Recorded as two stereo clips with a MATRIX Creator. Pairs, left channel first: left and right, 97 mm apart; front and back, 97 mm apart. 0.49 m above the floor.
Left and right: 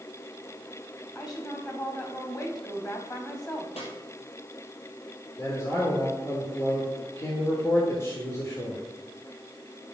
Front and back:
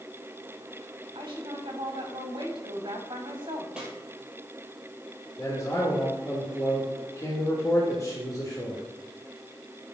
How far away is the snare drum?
About 2 m.